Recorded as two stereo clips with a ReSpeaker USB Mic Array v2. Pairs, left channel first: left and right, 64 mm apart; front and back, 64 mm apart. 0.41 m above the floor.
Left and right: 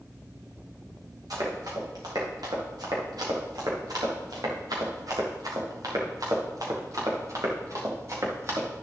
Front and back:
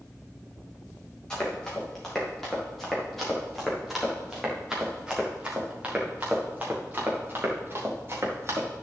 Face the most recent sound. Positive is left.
turn(degrees=-130)